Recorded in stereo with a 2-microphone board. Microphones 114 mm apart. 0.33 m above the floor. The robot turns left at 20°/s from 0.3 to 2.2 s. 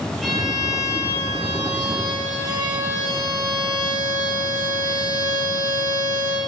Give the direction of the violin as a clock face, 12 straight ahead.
12 o'clock.